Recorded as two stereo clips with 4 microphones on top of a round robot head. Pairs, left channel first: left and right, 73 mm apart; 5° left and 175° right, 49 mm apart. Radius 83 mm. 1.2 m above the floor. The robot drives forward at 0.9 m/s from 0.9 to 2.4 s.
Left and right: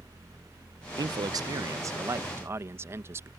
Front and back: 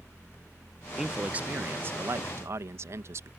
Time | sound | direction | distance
1.0 | a man speaking | 95° right | ?